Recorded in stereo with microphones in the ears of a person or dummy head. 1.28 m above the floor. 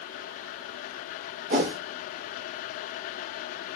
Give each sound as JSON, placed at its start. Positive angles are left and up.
{"t": 1.5, "sound": "a whoosh", "side_deg": -50, "distance_m": 0.8}